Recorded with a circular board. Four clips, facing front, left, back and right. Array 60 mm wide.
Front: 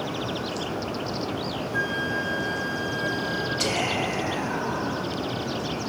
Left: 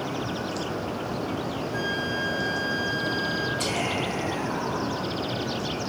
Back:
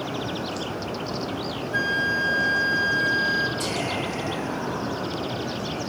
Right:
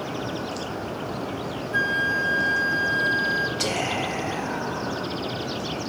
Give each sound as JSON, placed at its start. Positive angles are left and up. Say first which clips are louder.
{"t": 1.7, "sound": "a flute", "louder": "right 8 dB, back 4 dB", "azimuth_deg": -155, "distance_m": 0.7}
{"t": 3.6, "sound": "whispering", "louder": "right 1 dB, front 1 dB", "azimuth_deg": -65, "distance_m": 1.2}